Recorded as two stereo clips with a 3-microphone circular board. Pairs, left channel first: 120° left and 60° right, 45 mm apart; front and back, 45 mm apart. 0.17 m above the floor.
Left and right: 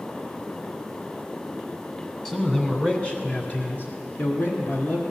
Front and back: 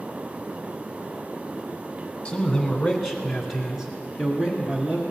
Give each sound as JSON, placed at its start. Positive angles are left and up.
{"t": 2.2, "sound": "a man speaking", "azimuth_deg": 55, "distance_m": 1.6}